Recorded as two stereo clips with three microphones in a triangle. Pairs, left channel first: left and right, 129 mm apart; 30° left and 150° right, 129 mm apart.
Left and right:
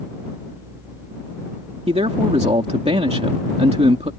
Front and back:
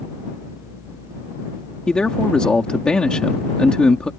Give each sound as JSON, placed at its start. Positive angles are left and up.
{"t": 1.9, "sound": "a man speaking", "azimuth_deg": -55}